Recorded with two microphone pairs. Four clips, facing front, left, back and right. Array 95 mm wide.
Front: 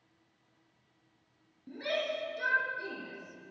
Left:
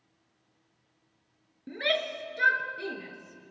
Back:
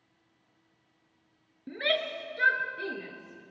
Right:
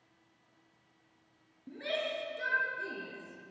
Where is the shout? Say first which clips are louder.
Left 5 dB, back 3 dB; 130° left, 3.5 m.